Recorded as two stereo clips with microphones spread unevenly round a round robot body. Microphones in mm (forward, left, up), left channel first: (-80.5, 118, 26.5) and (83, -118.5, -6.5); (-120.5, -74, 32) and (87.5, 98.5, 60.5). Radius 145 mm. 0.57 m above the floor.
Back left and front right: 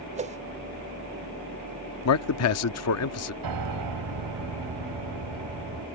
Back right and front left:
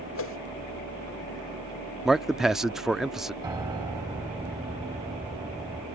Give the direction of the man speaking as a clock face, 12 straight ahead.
8 o'clock.